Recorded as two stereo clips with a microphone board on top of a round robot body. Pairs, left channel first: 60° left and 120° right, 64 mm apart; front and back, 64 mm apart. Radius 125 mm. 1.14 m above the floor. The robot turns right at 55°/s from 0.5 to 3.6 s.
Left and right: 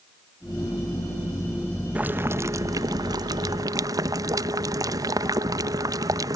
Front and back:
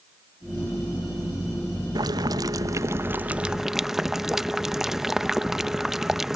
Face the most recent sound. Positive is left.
turn(degrees=-95)